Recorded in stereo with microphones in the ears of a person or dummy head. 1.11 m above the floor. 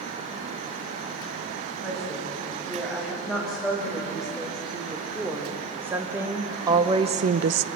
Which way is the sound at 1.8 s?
Centre (ahead or behind).